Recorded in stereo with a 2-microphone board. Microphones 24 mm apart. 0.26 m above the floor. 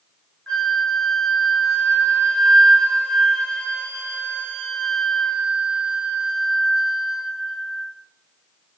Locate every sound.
0.5 s a flute: 35° left (ahead or behind), 1.9 m